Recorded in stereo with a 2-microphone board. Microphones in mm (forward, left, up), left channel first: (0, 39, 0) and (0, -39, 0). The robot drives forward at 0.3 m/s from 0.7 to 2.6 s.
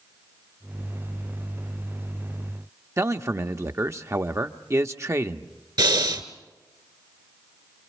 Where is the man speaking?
40° right (ahead or behind), 0.7 m.